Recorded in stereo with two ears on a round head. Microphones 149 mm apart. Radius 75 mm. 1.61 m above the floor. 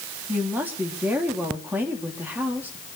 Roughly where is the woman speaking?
Centre.